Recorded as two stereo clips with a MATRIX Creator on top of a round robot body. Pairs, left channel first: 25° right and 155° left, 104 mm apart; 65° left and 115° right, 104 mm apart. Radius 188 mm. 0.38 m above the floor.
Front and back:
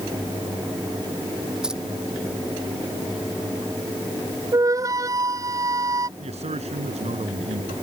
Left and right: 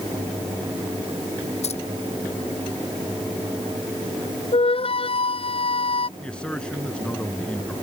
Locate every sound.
1.6 s keys jangling: 75° left
4.5 s a flute: 100° left
6.2 s a man speaking: 150° left